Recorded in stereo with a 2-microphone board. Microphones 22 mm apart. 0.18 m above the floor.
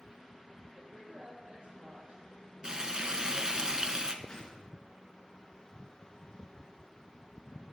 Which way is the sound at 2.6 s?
35° right (ahead or behind).